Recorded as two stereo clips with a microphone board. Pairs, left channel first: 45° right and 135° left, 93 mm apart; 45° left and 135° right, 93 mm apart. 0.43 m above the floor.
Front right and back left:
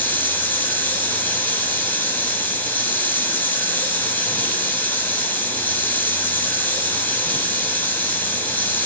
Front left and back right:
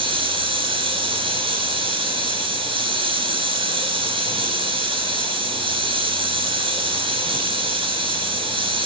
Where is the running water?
115° right, 3 m.